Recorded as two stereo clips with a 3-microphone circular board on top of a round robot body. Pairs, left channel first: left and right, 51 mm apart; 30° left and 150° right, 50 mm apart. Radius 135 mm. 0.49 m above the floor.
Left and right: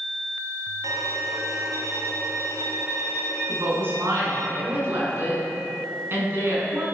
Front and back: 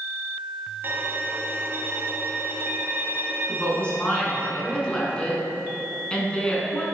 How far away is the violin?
About 1.3 m.